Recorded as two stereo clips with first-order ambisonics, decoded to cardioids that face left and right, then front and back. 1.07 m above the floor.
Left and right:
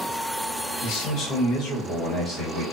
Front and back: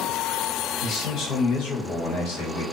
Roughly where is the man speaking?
Ahead left.